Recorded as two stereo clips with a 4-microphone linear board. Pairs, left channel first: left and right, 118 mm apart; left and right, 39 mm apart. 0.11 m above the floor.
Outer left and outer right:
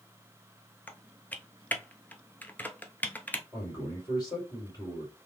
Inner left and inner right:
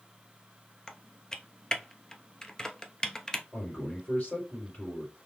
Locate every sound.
0.9 s typing on a keyboard: 15° left (ahead or behind), 0.7 m
3.5 s a man speaking: 35° left (ahead or behind), 4 m